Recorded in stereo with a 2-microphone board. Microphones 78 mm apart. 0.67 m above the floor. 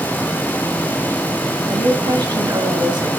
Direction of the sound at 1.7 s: 70° right (ahead or behind).